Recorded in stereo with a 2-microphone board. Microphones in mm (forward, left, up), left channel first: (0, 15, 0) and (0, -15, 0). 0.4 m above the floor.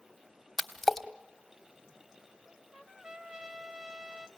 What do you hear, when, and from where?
0.6 s a splash: 10° left (ahead or behind), 0.9 m
2.5 s a trumpet: 20° right (ahead or behind), 1.2 m